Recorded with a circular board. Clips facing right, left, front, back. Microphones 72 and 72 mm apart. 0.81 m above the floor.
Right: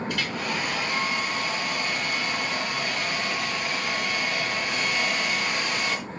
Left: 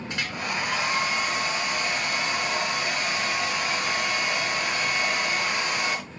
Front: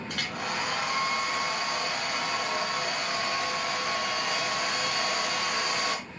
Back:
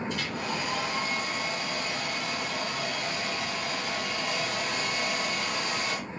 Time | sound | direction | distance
0.1 | a hair dryer | 25° left | 4.5 m